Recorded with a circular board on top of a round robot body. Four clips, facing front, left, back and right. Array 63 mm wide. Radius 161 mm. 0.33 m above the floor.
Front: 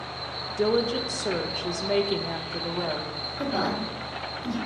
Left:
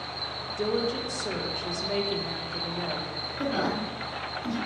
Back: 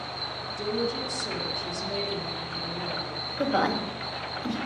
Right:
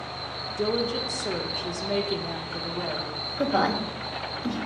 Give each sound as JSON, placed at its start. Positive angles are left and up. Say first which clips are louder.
{"t": 0.6, "sound": "a woman speaking", "louder": "right 1 dB, front 6 dB", "azimuth_deg": -5, "distance_m": 1.4}
{"t": 3.4, "sound": "a woman speaking", "louder": "right 4 dB, back 2 dB", "azimuth_deg": -140, "distance_m": 2.0}